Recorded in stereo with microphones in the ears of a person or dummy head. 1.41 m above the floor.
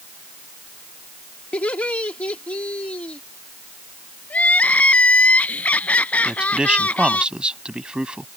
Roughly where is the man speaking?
Centre.